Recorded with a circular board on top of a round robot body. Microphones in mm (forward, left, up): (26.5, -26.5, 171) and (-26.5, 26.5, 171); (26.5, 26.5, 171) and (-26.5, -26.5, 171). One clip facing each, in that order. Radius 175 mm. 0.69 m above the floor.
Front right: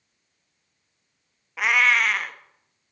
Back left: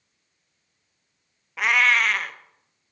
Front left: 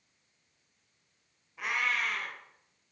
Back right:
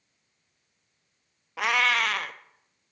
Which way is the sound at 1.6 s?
130° right.